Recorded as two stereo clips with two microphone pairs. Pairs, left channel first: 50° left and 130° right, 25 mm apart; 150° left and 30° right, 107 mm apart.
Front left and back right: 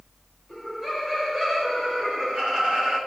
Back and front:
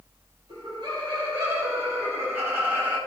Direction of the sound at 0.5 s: 15° right.